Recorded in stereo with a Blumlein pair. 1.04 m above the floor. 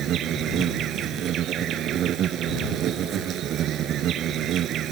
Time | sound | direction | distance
0.0 | an insect | 30° right | ?